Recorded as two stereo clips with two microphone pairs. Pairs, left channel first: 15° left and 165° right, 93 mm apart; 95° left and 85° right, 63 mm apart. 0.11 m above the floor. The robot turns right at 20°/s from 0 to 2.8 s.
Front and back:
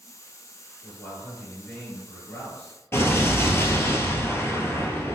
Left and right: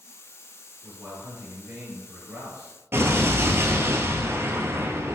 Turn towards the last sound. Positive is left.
turn(degrees=-45)